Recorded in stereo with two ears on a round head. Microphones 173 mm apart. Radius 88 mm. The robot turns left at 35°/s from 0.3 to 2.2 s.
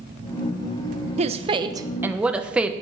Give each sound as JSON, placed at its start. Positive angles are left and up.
{"t": 1.2, "sound": "a woman speaking", "azimuth_deg": -135, "distance_m": 0.9}